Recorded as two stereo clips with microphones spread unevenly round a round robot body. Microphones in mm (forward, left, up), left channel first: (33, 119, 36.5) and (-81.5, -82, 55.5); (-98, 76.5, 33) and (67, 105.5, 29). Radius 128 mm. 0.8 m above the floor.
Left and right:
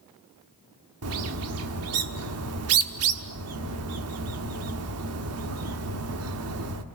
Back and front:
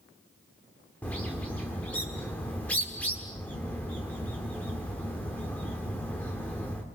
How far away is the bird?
About 1.4 m.